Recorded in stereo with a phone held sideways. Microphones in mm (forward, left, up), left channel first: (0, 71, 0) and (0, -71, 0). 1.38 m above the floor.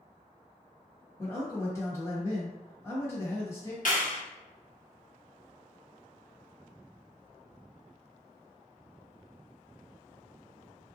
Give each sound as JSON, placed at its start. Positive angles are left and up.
{"t": 1.2, "sound": "a man speaking", "side_deg": 20, "distance_m": 1.2}
{"t": 3.9, "sound": "a clap", "side_deg": 65, "distance_m": 0.7}